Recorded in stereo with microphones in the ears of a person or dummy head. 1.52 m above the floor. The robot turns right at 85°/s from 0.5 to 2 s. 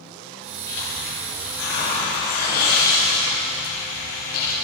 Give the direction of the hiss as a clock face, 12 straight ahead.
11 o'clock.